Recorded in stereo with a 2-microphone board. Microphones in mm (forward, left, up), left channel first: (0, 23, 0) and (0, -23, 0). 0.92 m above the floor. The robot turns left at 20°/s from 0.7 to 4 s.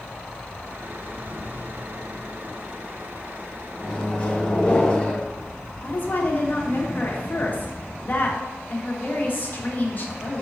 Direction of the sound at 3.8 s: 20° left (ahead or behind).